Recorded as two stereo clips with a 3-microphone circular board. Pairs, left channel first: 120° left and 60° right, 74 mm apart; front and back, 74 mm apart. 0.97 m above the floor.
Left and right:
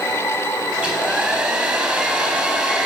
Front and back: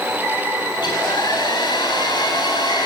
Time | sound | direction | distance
0.7 | a hair dryer | 20° left | 8 m